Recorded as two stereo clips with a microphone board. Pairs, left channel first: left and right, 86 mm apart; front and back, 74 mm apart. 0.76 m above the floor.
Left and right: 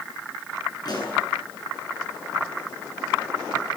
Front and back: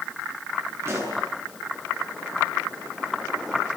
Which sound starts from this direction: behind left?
A pop, at 0.8 s.